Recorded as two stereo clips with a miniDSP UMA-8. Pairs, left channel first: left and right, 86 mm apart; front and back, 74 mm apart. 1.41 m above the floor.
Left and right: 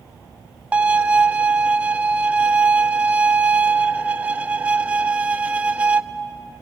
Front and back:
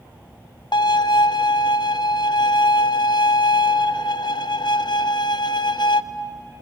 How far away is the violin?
About 0.6 m.